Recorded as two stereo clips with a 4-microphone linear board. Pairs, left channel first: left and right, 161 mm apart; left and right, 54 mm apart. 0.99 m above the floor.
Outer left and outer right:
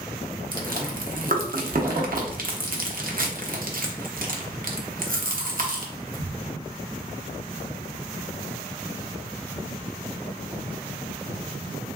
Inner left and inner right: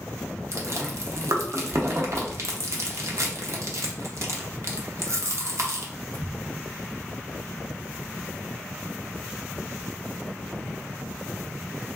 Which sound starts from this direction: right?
Chewing, at 0.5 s.